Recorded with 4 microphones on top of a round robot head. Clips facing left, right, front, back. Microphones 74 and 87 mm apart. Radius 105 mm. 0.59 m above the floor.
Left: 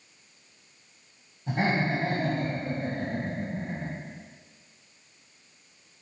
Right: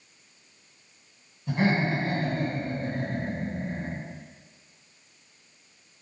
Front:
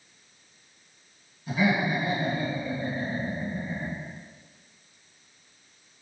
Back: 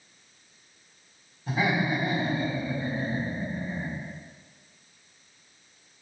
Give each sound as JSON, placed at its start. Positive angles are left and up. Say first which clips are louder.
{"t": 1.5, "sound": "laughter", "louder": "right 1 dB, front 1 dB", "azimuth_deg": 125, "distance_m": 3.0}